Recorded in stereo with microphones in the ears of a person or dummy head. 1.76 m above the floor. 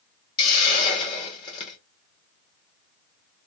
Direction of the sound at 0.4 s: 25° left (ahead or behind).